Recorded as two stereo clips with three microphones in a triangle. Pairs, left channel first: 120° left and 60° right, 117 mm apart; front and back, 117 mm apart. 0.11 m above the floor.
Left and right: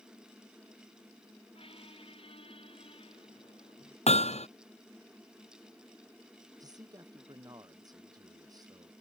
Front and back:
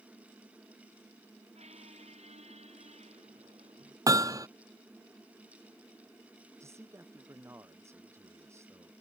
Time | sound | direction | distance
1.6 | a squeak | 160° left | ?
4.1 | hammering | 120° left | ?
6.6 | a man speaking | 115° right | ?